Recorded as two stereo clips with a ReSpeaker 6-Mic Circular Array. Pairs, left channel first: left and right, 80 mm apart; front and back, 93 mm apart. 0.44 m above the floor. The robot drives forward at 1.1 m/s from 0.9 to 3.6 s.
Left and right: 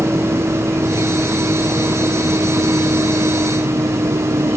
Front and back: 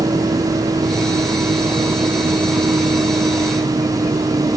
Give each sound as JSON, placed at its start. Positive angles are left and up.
{"t": 0.0, "sound": "a vehicle", "azimuth_deg": -155}